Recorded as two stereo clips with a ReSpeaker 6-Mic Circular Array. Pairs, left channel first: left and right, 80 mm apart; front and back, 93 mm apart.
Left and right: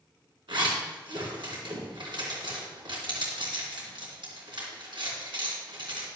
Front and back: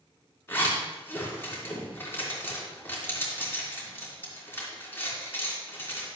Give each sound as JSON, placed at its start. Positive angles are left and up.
{"t": 0.5, "sound": "a zipper", "azimuth_deg": -70, "distance_m": 3.0}